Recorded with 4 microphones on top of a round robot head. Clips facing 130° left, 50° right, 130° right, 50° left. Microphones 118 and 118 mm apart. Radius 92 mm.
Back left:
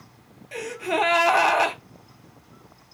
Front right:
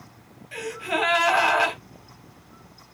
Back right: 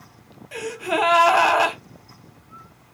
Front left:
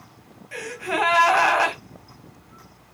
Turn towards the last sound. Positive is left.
turn(degrees=165)